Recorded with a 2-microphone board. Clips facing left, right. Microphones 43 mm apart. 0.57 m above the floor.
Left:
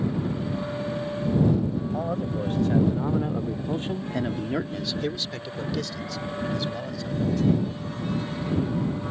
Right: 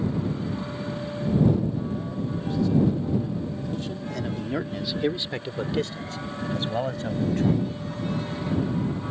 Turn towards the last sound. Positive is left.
turn(degrees=-40)  # may be behind; listen again after turning